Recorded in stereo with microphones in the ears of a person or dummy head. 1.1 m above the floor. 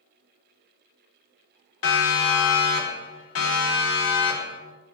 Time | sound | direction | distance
1.8 | a siren | 80° left | 4.5 m